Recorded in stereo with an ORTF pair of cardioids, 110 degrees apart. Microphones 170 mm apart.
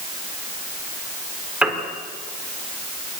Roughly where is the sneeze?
No sneeze in this recording.